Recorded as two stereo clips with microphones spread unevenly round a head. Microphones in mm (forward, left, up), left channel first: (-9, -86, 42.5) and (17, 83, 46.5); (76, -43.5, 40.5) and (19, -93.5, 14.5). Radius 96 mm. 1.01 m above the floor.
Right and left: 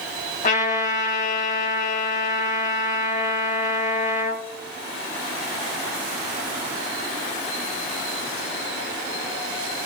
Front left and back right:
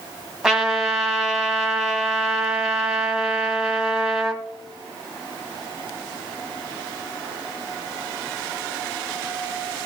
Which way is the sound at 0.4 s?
50° right.